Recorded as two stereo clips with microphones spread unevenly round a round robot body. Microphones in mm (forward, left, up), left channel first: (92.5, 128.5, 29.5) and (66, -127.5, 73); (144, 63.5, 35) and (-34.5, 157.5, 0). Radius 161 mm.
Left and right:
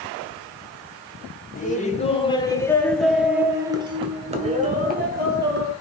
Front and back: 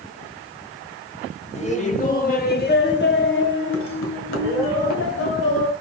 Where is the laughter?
30° left, 2.5 m; by 5.7 s 50° right, 3 m.